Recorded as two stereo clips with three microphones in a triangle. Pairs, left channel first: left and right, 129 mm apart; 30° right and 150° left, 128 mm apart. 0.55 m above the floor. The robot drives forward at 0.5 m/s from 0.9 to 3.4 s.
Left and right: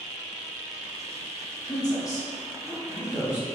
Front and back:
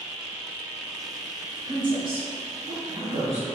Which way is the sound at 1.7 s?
130° left.